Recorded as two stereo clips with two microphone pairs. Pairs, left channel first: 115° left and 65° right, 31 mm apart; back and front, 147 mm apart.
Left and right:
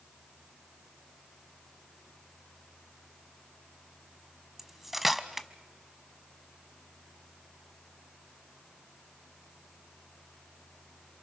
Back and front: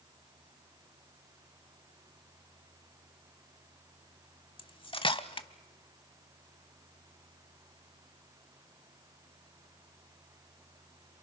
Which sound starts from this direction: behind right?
Cutlery clinking, at 4.6 s.